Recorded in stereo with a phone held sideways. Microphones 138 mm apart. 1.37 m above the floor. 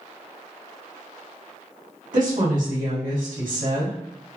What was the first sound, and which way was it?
A woman speaking, 75° right (ahead or behind).